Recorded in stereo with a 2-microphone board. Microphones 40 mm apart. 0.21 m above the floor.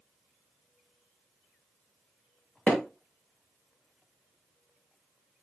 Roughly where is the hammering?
Left.